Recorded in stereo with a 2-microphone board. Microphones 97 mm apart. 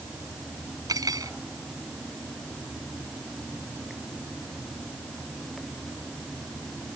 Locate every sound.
0.9 s cutlery clinking: 40° right (ahead or behind)